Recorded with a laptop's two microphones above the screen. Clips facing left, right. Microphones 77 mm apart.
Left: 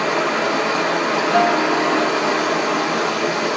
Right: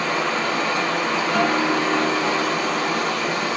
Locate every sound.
0.0 s running water: 75° left (ahead or behind), 1.0 m
1.3 s a guitar: 75° left (ahead or behind), 1.9 m